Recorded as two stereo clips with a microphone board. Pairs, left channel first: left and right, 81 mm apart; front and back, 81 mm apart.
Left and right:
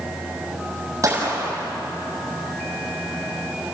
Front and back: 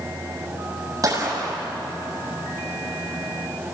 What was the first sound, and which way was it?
A gunshot, 140° right.